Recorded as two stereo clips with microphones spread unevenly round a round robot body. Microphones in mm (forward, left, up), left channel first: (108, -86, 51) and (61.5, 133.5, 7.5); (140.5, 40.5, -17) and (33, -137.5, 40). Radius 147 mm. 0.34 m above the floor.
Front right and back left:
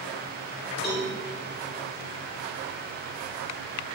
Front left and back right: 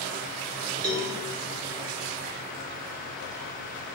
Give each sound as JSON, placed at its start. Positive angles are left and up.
{"t": 0.8, "sound": "a cowbell", "azimuth_deg": -155, "distance_m": 0.7}